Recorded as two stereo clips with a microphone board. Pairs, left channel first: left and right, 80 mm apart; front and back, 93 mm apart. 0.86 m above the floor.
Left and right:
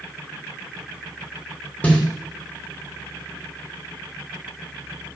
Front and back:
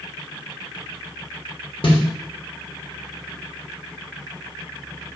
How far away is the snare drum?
About 2.5 m.